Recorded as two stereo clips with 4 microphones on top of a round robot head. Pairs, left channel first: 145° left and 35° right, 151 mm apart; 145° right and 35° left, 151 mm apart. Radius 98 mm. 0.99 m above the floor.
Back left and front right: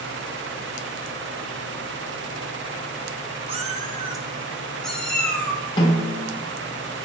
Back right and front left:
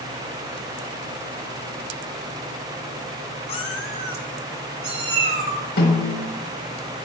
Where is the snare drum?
160° right, 4 m.